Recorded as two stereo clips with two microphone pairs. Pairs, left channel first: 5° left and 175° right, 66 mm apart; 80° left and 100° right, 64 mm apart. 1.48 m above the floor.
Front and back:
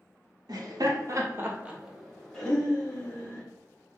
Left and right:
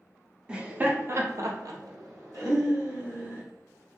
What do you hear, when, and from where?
0.5 s laughter: 175° right, 0.7 m; by 3.4 s 65° right, 1.4 m